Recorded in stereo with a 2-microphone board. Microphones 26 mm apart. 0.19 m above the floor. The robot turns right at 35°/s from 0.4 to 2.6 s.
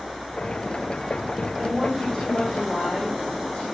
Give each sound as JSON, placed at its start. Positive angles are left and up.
{"t": 1.6, "sound": "a woman speaking", "azimuth_deg": 0, "distance_m": 6.5}